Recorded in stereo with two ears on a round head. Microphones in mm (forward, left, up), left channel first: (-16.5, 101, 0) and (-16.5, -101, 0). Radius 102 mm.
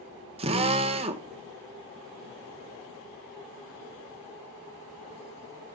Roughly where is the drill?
Right.